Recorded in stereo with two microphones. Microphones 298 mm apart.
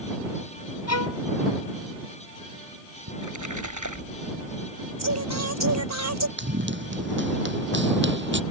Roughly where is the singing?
Right.